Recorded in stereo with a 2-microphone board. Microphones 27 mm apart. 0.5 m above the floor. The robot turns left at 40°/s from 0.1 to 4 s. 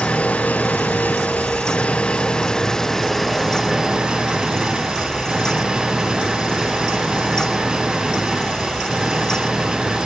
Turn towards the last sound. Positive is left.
turn(degrees=-30)